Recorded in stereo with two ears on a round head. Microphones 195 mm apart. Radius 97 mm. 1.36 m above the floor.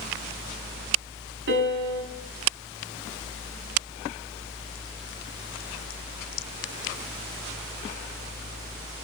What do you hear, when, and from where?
1.5 s a piano: 55° right (ahead or behind), 6 m